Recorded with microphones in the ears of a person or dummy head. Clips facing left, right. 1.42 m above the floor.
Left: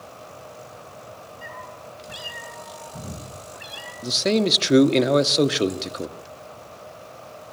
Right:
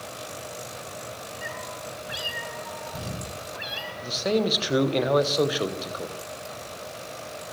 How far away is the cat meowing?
About 7.5 m.